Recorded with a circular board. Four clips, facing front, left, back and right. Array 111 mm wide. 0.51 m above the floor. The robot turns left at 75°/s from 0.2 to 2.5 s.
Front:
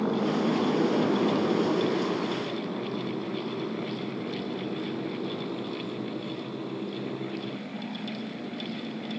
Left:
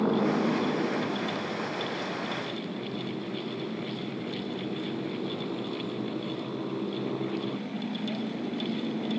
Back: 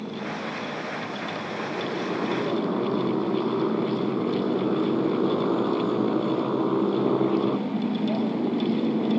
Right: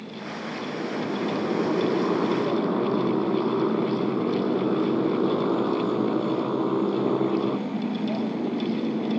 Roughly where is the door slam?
I don't hear a door slam.